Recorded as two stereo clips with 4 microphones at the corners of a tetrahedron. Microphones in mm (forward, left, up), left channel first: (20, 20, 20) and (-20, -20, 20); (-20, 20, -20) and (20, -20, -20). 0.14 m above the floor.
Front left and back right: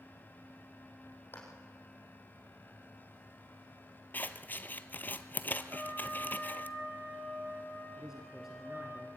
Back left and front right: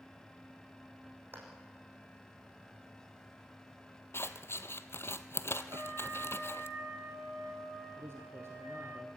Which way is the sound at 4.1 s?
95° left.